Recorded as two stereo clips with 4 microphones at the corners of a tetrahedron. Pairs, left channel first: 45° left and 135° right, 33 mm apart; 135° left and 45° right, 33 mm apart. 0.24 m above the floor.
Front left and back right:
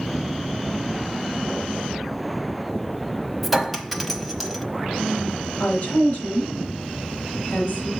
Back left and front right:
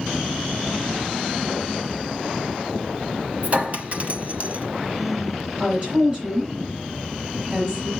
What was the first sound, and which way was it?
A clink, 50° right.